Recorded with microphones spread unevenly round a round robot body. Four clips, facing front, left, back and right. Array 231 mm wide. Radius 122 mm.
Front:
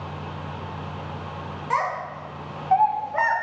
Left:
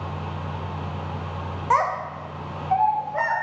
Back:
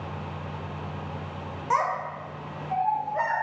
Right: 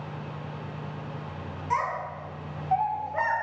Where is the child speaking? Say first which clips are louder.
Left 7 dB, even; 90° left, 0.5 m; by 3.4 s 5° right, 0.7 m.